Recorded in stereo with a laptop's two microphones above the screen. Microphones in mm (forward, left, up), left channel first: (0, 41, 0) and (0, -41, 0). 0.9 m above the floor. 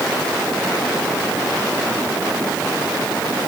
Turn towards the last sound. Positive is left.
No sound to turn to.